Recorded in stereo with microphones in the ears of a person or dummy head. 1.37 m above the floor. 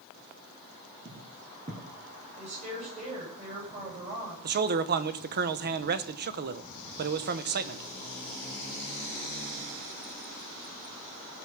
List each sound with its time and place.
1.1 s footsteps: 25° right (ahead or behind), 2.5 m
2.4 s a woman speaking: 30° right (ahead or behind), 8.5 m
4.4 s a man speaking: 50° right (ahead or behind), 0.9 m